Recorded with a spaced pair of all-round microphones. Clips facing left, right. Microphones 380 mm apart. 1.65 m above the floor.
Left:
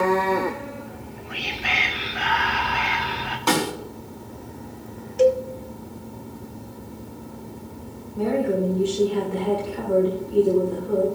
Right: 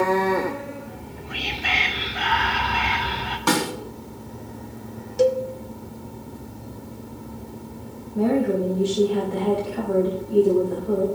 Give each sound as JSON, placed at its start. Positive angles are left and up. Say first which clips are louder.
{"t": 0.9, "sound": "whispering", "louder": "even", "side_deg": -50, "distance_m": 2.5}
{"t": 3.5, "sound": "a snare drum", "louder": "even", "side_deg": -25, "distance_m": 2.5}
{"t": 5.2, "sound": "a cowbell", "louder": "left 1 dB", "side_deg": -55, "distance_m": 0.9}
{"t": 8.2, "sound": "a woman speaking", "louder": "right 2 dB", "side_deg": -85, "distance_m": 3.0}